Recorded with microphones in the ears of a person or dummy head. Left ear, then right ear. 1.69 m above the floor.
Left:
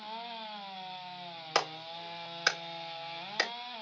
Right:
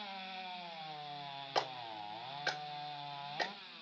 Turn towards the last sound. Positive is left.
turn(degrees=70)  # may be behind; listen again after turning